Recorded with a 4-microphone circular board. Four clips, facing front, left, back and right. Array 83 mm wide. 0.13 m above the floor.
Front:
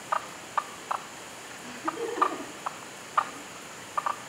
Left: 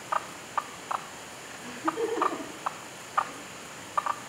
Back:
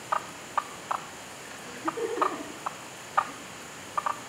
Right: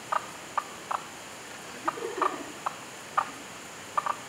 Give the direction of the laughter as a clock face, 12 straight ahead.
10 o'clock.